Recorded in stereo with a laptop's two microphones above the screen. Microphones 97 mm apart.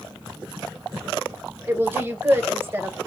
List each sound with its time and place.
1.7 s a woman speaking: 25° right (ahead or behind), 1.0 m